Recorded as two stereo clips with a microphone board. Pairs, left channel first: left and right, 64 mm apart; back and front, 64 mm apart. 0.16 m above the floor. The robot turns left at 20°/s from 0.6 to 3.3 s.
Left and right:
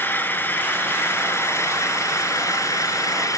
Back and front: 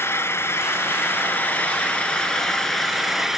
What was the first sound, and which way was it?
An engine running, 140° left.